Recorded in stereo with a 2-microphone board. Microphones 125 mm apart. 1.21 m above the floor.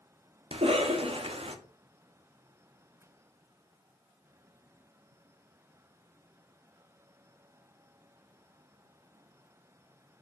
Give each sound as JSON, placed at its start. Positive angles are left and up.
{"t": 0.5, "sound": "a cough", "side_deg": -50, "distance_m": 0.6}